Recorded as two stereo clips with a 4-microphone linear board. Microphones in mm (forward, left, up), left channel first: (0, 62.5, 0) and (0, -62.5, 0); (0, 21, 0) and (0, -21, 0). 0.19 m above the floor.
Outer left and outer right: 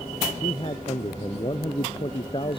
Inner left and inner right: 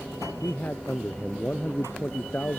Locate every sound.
0.4 s a man speaking: 45° left (ahead or behind)